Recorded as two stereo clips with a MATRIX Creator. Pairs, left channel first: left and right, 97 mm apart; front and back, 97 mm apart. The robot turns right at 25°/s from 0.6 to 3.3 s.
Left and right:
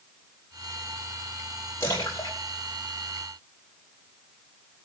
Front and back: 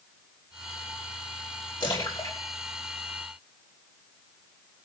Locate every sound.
1.8 s a splash: 30° left, 5 m; by 4.0 s 65° left, 5 m